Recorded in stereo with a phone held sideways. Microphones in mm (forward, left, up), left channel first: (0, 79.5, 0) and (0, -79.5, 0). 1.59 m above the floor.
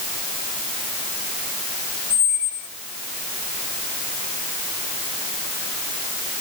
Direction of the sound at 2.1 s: Centre (ahead or behind).